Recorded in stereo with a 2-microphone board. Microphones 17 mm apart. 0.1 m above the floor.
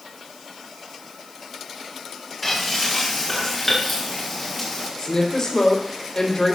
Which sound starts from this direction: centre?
Frying, at 2.4 s.